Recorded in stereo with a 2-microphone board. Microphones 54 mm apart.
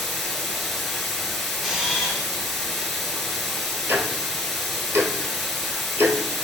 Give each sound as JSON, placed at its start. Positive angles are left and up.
{"t": 0.0, "sound": "running water", "side_deg": 5, "distance_m": 0.7}
{"t": 1.6, "sound": "a camera shutter", "side_deg": -5, "distance_m": 1.1}
{"t": 3.9, "sound": "ticking", "side_deg": -55, "distance_m": 0.8}